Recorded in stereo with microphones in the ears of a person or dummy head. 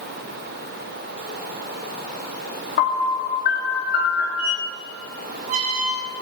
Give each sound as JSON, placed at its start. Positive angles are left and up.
{"t": 2.8, "sound": "a piano", "side_deg": 55, "distance_m": 1.9}
{"t": 4.4, "sound": "a squeak", "side_deg": -40, "distance_m": 1.2}